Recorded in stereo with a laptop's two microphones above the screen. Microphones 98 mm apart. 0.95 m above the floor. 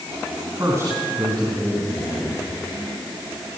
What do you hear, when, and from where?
0.6 s a man speaking: 35° right (ahead or behind), 9 m